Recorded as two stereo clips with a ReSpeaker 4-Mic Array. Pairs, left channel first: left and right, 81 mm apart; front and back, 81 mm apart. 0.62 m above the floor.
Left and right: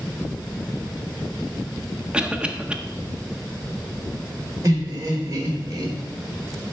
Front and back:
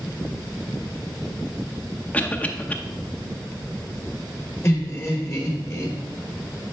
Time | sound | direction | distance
2.1 | a cough | 35° right | 0.6 m
4.6 | laughter | 55° right | 2.5 m